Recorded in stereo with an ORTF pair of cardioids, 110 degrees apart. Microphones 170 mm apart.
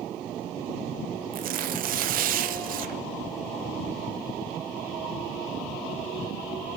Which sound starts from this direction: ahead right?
Tearing paper, at 1.3 s.